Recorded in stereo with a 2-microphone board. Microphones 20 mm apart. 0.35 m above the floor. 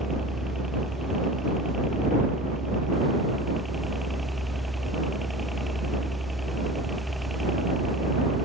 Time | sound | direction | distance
0.0 | a helicopter | 30° right (ahead or behind) | ?